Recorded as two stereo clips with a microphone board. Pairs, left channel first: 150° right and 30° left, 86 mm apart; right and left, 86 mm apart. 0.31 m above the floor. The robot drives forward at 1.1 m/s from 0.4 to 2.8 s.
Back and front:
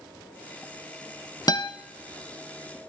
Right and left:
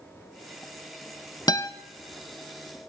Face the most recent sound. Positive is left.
turn(degrees=-165)